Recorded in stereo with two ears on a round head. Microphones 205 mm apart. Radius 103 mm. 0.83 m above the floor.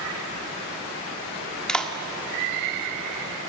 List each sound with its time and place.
1.7 s a clap: 5° left (ahead or behind), 1.4 m